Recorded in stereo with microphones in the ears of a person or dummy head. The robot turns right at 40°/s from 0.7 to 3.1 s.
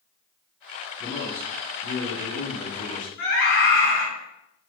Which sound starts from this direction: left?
A scream, at 3.2 s.